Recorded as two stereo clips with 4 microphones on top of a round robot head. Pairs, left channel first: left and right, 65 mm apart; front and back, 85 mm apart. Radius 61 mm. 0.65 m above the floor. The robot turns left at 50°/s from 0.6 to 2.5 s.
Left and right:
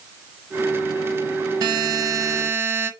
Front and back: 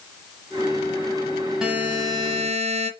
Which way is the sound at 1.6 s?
95° right.